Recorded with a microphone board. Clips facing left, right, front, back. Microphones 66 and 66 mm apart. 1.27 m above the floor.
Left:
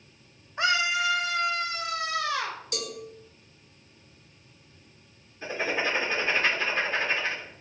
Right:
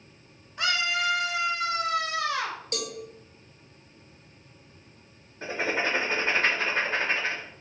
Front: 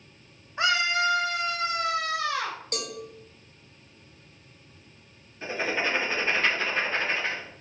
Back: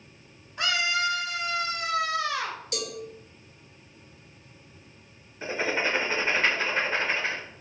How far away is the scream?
About 0.6 m.